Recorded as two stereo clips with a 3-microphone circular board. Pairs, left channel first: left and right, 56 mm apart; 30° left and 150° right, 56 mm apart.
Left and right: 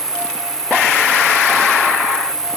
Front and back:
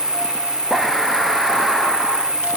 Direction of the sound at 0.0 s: 105° left.